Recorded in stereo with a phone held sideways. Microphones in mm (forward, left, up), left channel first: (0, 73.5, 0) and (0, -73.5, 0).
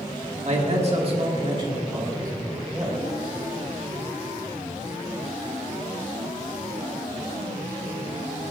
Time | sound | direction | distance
0.5 | a man speaking | 50° right (ahead or behind) | 1.8 m